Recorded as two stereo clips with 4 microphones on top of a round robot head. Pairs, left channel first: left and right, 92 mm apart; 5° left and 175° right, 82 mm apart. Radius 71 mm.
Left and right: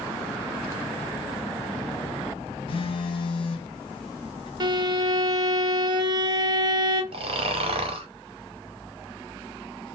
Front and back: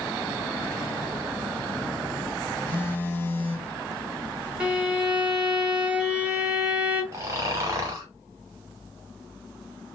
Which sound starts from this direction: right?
A violin, at 4.6 s.